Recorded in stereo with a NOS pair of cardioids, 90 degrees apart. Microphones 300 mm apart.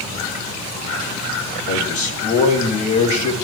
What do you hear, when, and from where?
1.7 s a man speaking: 70° left, 4 m